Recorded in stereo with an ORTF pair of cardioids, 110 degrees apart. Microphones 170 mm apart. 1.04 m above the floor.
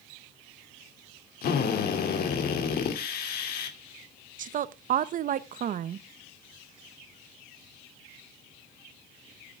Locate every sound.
1.4 s a drill: 65° left, 2.5 m
4.4 s a woman speaking: 55° right, 0.9 m